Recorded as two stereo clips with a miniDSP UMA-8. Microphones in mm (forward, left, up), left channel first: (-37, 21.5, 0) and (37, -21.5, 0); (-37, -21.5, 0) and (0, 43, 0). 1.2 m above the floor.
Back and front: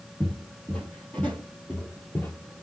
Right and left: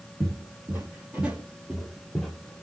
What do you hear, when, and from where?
0.2 s footsteps: 75° left, 1.5 m; by 2.6 s straight behind, 1.3 m